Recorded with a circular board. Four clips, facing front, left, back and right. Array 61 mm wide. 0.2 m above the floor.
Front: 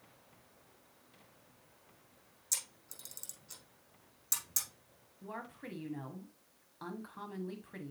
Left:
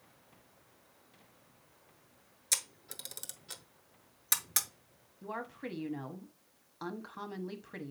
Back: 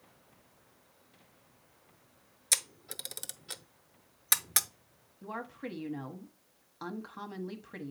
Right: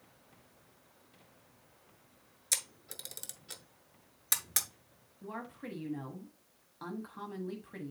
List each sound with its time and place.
2.5 s a camera shutter: straight behind, 0.7 m
5.2 s a woman speaking: 135° left, 1.0 m